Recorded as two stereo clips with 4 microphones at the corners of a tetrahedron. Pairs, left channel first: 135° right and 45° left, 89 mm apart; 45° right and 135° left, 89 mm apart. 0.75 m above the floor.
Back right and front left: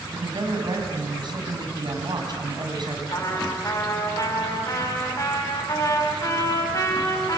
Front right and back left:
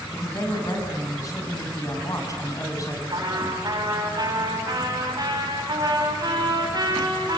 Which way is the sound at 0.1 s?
5° left.